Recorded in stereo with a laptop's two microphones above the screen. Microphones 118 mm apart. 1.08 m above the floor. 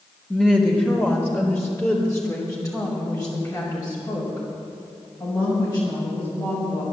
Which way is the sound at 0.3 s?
5° left (ahead or behind).